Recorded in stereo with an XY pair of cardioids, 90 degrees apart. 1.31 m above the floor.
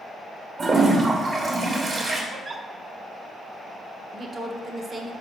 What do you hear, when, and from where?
0.6 s a toilet flushing: 50° right, 2.5 m
2.3 s a giggle: 50° right, 1.1 m
4.1 s a woman speaking: 40° right, 1.5 m